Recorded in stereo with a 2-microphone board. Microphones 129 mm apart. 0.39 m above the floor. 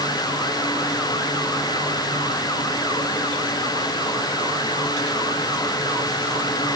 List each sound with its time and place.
Only background noise.